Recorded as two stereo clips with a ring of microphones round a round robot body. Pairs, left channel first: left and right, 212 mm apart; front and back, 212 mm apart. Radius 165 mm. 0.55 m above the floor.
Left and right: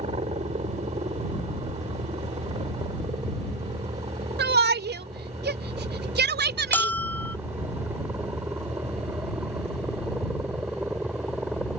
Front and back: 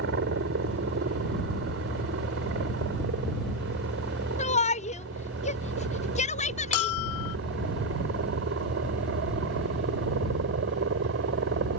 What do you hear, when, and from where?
0.0 s a helicopter: 155° right; by 11.8 s 175° right
4.4 s a shout: 60° right
6.7 s a bell: 10° left